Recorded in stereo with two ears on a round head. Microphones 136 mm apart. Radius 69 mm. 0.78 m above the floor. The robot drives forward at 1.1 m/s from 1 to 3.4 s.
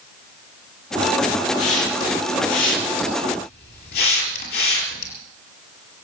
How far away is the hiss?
About 5.5 m.